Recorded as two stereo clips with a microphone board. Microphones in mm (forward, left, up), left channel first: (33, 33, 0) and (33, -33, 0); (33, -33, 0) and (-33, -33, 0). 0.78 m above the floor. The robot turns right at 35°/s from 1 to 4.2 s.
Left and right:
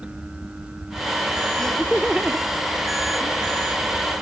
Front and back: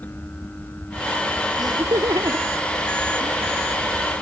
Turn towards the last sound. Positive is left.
turn(degrees=-100)